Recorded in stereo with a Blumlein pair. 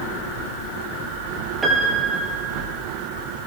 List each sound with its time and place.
1.6 s a piano: 15° right, 6 m